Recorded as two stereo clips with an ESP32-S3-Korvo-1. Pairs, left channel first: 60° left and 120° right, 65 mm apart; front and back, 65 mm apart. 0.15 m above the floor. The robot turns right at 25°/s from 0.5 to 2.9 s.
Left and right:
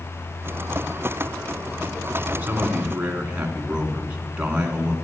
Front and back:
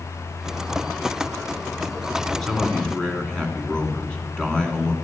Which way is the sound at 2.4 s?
75° right.